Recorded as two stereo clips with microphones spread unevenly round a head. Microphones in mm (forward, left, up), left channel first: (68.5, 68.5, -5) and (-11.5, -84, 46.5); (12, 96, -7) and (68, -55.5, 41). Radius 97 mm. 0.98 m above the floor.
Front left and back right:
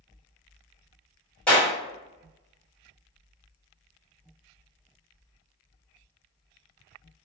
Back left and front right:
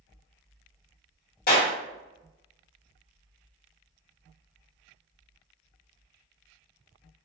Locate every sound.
1.5 s a clap: 145° left, 1.4 m